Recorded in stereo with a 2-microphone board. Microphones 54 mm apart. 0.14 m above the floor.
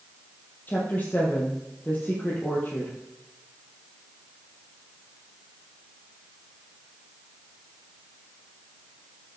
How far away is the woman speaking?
About 3.5 m.